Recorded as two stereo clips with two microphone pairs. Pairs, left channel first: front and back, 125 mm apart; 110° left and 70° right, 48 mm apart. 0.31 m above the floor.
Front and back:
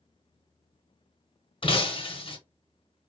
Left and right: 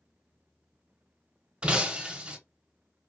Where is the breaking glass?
10° right, 0.6 m.